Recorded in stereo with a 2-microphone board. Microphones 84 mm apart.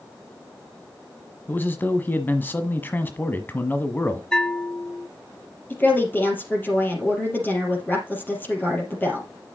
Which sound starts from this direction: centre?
A bell, at 4.3 s.